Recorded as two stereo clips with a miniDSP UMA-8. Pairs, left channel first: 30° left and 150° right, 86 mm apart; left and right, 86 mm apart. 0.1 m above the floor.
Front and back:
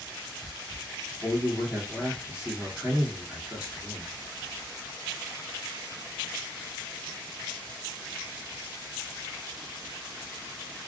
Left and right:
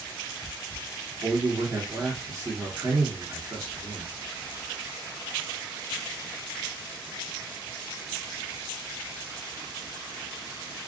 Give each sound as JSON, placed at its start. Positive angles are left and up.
{"t": 1.2, "sound": "a man speaking", "azimuth_deg": -85, "distance_m": 1.4}